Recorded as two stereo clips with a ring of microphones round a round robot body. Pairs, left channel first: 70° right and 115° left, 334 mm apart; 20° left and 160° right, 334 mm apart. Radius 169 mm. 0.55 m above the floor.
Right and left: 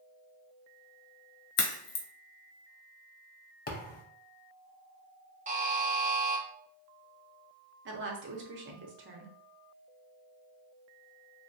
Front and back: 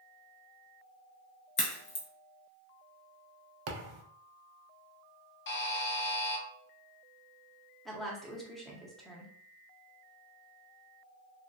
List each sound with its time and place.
1.6 s a crack: 50° right, 0.9 m
3.7 s a thud: 130° right, 0.5 m
5.5 s a buzzer: 55° left, 0.7 m
7.8 s a woman speaking: 110° left, 0.8 m